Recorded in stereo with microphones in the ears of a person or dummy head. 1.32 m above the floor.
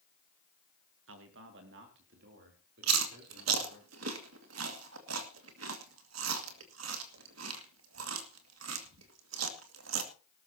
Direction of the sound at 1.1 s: 75° right (ahead or behind).